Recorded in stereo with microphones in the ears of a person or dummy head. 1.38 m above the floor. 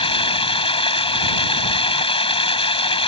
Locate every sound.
0.0 s running water: 30° left (ahead or behind)